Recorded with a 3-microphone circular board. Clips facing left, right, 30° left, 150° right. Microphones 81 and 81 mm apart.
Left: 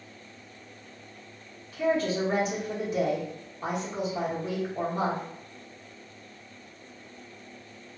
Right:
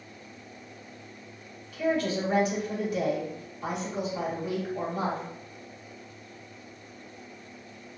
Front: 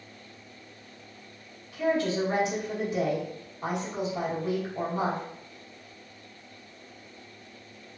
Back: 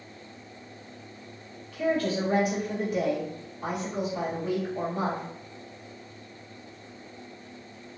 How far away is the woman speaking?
About 1.3 m.